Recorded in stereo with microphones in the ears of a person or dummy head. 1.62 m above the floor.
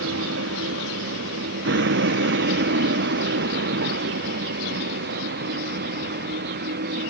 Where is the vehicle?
60° right (ahead or behind); by 7.1 s 45° right (ahead or behind).